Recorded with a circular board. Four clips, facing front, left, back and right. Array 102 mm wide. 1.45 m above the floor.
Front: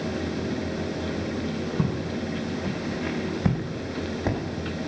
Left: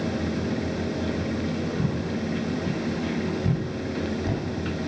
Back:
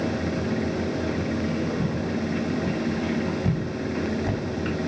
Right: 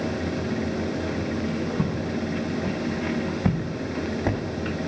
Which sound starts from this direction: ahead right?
Footsteps, at 1.8 s.